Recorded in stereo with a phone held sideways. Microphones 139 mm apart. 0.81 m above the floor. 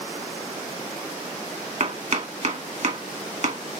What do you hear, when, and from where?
1.8 s chopping: 55° right (ahead or behind), 1.7 m